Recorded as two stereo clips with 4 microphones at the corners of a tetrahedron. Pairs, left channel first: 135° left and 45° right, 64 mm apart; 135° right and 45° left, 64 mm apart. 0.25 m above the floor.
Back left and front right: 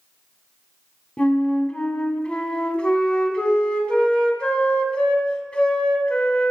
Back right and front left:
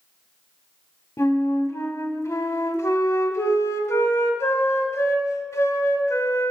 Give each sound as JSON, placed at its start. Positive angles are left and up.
{"t": 1.2, "sound": "a flute", "azimuth_deg": -155, "distance_m": 0.7}